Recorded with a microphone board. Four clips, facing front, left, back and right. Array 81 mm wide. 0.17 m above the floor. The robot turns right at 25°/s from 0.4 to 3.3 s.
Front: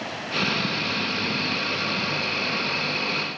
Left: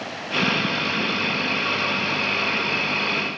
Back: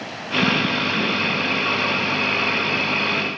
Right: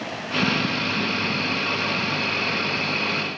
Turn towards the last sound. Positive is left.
No sound to turn to.